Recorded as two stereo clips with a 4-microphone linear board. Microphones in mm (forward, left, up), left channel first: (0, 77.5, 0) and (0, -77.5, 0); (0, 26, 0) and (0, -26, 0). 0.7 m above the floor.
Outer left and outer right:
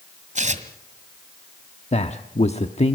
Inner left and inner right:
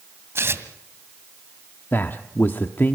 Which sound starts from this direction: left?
A man speaking, at 1.9 s.